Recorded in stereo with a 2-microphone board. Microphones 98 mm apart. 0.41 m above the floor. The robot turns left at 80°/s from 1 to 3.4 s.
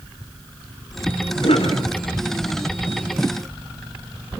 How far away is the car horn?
No car horn in this recording.